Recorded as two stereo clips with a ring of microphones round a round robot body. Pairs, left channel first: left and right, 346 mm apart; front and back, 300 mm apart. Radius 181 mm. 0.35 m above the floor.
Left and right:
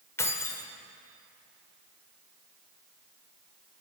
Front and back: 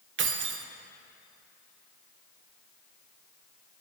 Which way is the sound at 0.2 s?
170° left.